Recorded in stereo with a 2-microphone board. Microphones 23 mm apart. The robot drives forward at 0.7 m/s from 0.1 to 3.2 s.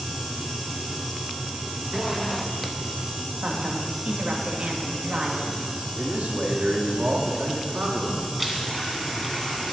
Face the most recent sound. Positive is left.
turn(degrees=0)  # may be behind; listen again after turning